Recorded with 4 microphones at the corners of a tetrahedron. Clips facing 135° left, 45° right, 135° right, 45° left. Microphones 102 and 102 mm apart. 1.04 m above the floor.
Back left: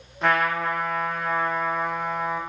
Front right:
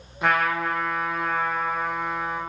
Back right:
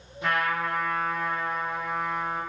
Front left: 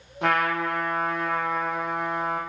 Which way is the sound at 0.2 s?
40° left.